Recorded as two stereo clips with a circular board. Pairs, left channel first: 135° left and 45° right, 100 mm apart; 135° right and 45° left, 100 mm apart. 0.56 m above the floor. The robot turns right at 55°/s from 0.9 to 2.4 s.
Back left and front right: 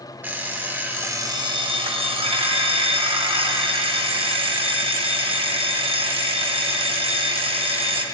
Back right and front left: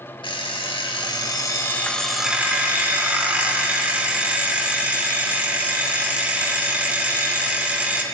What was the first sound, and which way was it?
An alarm clock, 115° right.